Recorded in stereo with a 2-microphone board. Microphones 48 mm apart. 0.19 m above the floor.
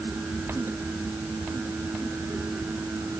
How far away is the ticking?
No ticking in this recording.